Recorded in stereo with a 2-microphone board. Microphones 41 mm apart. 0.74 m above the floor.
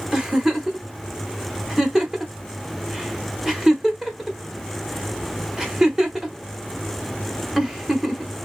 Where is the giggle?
15° right (ahead or behind), 0.9 m.